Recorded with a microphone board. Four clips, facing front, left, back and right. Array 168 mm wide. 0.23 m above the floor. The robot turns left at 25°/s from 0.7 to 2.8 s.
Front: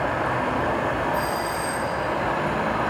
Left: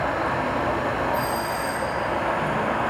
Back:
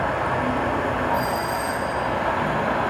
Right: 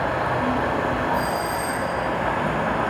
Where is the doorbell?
35° left, 1.6 m; by 1.9 s 15° left, 1.6 m.